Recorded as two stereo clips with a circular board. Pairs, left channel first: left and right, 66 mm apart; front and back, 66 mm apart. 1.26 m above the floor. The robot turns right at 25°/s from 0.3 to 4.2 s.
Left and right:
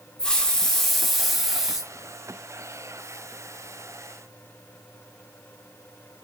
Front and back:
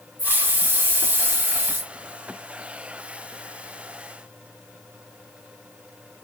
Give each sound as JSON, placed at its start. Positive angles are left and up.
{"t": 0.2, "sound": "a hiss", "azimuth_deg": 160, "distance_m": 0.5}